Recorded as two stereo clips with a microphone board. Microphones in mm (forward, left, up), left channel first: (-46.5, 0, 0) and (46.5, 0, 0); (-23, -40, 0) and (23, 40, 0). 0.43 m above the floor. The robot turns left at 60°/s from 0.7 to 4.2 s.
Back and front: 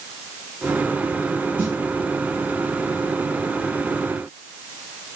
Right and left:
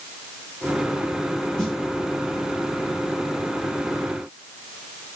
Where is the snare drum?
50° right, 1.5 m; by 1.8 s 60° right, 1.5 m.